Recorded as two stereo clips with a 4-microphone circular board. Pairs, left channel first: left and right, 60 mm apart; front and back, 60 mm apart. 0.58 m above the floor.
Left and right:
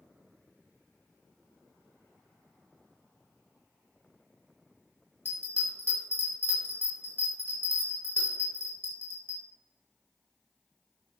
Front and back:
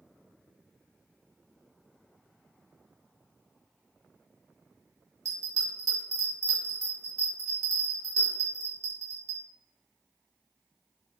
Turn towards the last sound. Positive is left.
turn(degrees=150)